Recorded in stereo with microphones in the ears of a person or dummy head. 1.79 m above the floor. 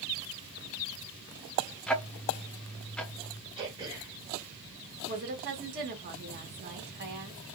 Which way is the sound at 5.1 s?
50° right (ahead or behind).